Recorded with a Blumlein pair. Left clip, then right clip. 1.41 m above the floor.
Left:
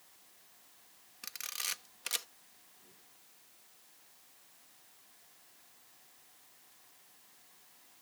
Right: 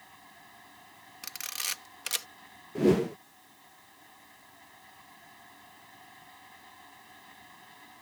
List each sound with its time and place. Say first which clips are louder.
0.0 s a fan: right 12 dB; 50° right
1.2 s a camera shutter: right 4 dB; 15° right
2.8 s a whoosh: right 38 dB; 45° right